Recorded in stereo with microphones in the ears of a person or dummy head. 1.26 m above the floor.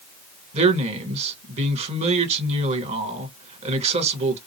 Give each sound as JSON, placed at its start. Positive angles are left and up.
{"t": 0.5, "sound": "a man speaking", "side_deg": -35, "distance_m": 1.4}